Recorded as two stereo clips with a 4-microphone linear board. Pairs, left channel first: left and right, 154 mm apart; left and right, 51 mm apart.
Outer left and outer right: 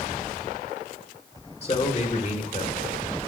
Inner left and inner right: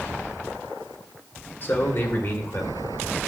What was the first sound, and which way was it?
A man speaking, 40° left (ahead or behind).